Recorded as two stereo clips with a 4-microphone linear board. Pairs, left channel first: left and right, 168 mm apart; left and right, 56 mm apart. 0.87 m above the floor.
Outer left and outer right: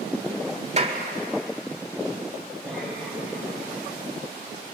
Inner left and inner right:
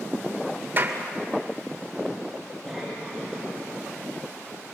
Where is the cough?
5° left (ahead or behind), 5 m.